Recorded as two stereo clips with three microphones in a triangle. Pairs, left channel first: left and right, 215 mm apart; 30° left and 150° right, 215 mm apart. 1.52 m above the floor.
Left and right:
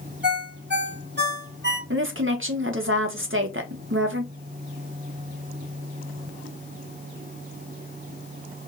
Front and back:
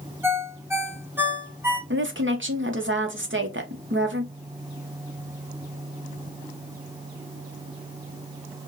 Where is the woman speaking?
120° right, 1.1 m.